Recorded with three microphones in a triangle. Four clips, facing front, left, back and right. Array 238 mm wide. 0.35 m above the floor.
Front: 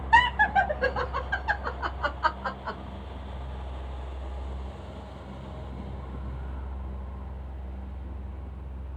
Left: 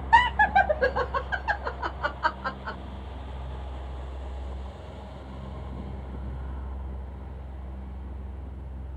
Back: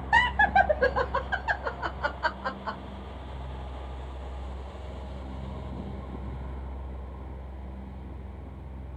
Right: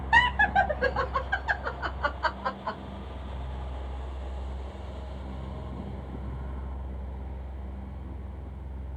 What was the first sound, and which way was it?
Laughter, 120° left.